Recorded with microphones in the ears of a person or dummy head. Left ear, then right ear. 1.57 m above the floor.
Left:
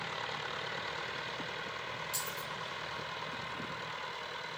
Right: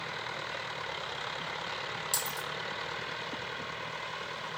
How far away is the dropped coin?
About 1.8 m.